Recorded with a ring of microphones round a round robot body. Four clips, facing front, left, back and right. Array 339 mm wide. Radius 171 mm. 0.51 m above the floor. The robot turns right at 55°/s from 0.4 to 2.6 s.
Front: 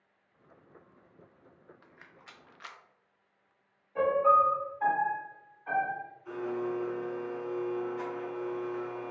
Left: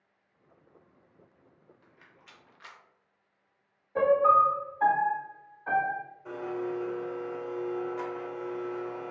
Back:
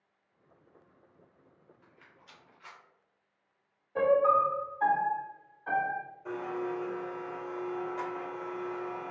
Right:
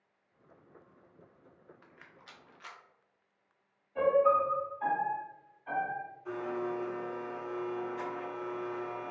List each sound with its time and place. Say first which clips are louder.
1.8 s a rattle: right 2 dB, front 4 dB; 40° right, 0.6 m; by 2.8 s 5° left, 0.6 m
4.0 s a piano: left 4 dB, even; 110° left, 0.5 m
6.2 s a blender: left 2 dB, front 2 dB; 155° left, 1.7 m